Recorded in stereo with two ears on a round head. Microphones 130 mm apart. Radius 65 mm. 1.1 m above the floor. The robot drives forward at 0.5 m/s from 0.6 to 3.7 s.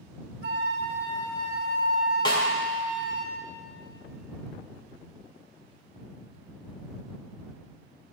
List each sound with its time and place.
0.4 s a flute: 80° right, 1.7 m; by 3.2 s 60° right (ahead or behind), 2 m
2.2 s a snare drum: 35° left (ahead or behind), 1.8 m